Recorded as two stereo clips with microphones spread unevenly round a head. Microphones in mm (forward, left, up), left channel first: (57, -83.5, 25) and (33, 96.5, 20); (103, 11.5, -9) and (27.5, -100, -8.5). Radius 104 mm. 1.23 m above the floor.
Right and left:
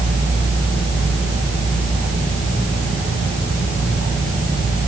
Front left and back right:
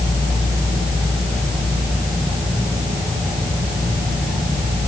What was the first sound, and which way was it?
Only background noise.